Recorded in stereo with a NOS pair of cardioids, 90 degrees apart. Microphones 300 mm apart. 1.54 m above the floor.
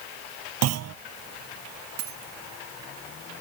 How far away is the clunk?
About 0.6 m.